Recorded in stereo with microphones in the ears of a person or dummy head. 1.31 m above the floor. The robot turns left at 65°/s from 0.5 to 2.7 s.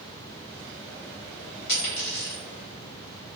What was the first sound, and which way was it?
A dropped coin, 65° left (ahead or behind).